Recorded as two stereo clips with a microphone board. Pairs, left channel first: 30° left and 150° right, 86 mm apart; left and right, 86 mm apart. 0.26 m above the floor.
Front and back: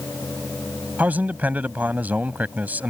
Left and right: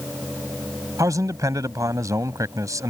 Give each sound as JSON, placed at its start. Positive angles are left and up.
{"t": 1.0, "sound": "a man speaking", "azimuth_deg": -90}